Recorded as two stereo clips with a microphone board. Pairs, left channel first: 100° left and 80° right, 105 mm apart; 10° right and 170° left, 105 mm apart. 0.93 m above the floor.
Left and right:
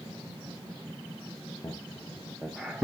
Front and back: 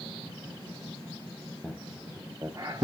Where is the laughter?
65° left, 0.6 m; by 2.8 s 155° right, 0.7 m.